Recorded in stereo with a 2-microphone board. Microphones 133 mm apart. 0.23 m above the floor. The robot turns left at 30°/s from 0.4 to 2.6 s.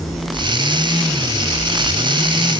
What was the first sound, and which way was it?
Only background noise.